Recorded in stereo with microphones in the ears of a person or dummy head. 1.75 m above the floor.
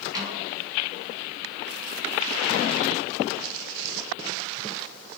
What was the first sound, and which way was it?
A snare drum, 30° right (ahead or behind).